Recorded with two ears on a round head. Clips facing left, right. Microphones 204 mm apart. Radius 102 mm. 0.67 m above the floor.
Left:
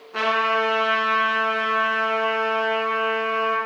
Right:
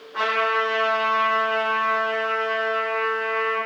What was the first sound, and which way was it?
A trumpet, 70° left (ahead or behind).